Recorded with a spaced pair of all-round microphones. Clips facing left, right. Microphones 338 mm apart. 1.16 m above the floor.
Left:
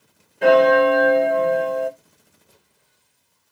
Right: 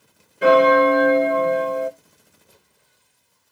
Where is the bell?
5° right (ahead or behind), 0.8 m.